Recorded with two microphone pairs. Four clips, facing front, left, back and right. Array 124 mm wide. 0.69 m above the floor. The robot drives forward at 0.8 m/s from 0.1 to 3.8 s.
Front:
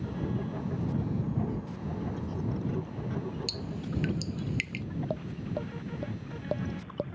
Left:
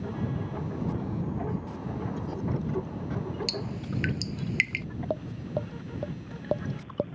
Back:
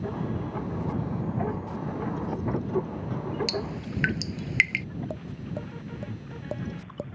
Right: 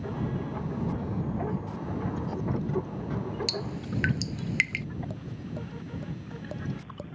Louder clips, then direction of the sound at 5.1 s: Left 7 dB, front 1 dB; 80° left.